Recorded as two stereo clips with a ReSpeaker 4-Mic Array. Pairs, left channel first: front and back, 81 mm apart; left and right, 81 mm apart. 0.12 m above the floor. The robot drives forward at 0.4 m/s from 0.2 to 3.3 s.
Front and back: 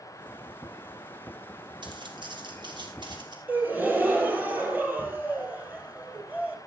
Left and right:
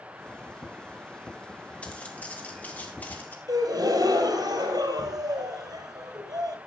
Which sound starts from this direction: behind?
Footsteps, at 1.8 s.